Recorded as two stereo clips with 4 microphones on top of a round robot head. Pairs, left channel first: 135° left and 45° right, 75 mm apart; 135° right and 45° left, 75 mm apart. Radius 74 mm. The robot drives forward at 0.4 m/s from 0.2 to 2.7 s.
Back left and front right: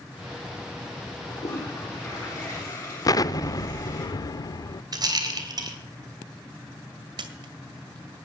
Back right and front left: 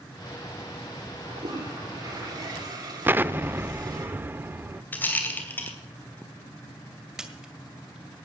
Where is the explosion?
105° left, 0.7 m.